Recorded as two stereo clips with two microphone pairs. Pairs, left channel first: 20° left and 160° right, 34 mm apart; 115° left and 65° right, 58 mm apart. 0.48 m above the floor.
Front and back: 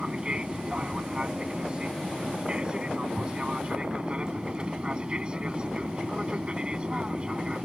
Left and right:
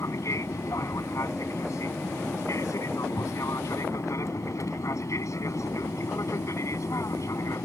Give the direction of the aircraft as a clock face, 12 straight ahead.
7 o'clock.